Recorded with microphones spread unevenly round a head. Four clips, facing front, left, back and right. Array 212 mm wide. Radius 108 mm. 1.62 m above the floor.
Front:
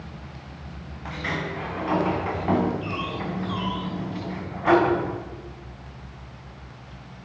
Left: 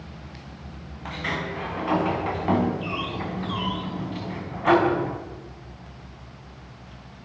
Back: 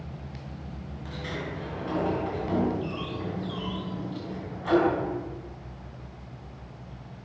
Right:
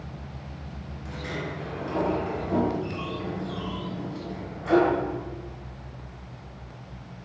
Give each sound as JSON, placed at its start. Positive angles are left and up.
{"t": 1.1, "sound": "a sliding door", "azimuth_deg": 50, "distance_m": 5.5}